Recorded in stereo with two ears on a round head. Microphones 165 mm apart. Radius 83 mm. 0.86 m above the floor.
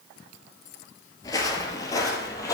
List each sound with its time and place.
1.2 s footsteps: 20° left (ahead or behind), 0.9 m